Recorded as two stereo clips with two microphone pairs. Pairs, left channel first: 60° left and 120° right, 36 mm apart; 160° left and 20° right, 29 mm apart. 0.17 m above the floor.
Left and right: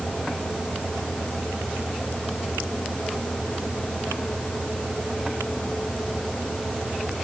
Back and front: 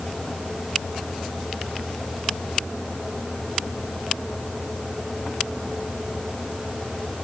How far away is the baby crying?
No baby crying in this recording.